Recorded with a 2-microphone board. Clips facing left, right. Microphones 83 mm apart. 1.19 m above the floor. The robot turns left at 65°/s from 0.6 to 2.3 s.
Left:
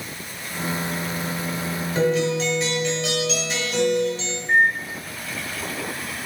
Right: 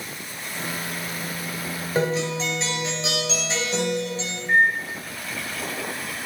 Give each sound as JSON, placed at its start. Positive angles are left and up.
{"t": 1.9, "sound": "a guitar", "side_deg": -40, "distance_m": 1.3}
{"t": 4.5, "sound": "a microwave", "side_deg": 0, "distance_m": 1.8}